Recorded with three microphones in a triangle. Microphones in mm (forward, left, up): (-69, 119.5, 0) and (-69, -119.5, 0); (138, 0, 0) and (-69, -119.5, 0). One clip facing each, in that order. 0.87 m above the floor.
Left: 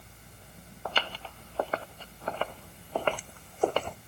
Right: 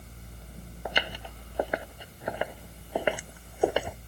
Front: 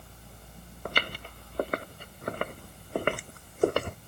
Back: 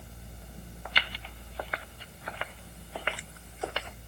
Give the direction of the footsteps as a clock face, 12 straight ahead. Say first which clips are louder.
Right 2 dB, front 8 dB; 12 o'clock.